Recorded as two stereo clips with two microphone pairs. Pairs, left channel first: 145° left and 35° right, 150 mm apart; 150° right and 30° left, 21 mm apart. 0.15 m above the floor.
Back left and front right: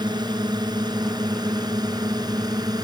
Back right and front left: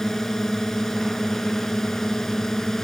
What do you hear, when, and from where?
0.0 s a drone: 85° right